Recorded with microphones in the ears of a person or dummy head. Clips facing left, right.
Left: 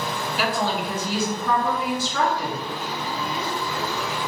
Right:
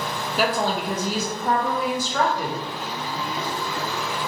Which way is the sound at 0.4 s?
35° right (ahead or behind).